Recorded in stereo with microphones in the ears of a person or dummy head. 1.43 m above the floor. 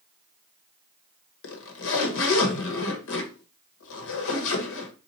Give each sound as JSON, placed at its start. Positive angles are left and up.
{"t": 1.4, "sound": "a zipper", "side_deg": 70, "distance_m": 1.3}